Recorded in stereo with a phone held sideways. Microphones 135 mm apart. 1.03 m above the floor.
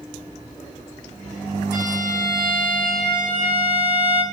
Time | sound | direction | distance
1.7 | a violin | 70° left (ahead or behind) | 1.5 m